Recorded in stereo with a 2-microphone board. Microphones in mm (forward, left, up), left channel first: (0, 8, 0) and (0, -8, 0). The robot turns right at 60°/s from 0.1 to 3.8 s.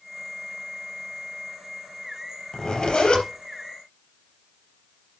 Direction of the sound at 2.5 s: 45° left.